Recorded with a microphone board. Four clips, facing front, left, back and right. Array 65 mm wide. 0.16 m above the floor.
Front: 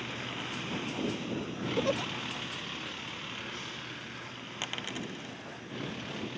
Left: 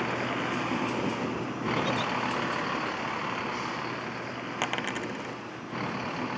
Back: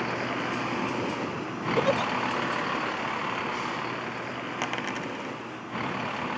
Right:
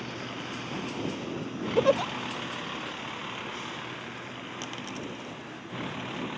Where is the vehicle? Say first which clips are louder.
Left 8 dB, back 10 dB; 145° left; by 6.4 s 160° left.